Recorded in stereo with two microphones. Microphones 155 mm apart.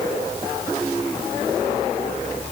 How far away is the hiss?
I don't hear a hiss.